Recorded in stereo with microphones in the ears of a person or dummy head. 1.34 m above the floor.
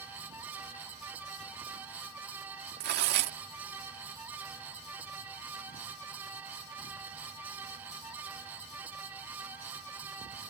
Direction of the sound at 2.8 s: 55° right (ahead or behind).